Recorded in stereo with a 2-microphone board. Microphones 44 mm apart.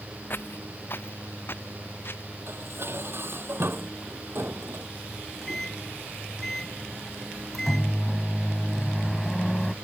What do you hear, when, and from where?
0.3 s footsteps: 50° left (ahead or behind); by 2.2 s 55° left (ahead or behind)
2.5 s dishes clattering: 60° right (ahead or behind)
5.1 s a microwave: 5° left (ahead or behind)